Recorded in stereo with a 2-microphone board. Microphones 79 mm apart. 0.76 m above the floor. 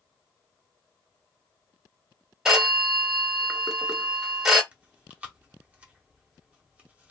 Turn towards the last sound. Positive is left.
turn(degrees=-20)  # may be behind; listen again after turning